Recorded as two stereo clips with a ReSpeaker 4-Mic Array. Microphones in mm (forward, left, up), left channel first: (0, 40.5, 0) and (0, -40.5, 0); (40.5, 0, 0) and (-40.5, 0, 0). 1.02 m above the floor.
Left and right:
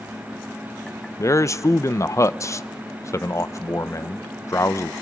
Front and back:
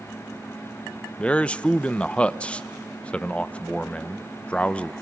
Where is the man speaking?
70° left, 0.5 m.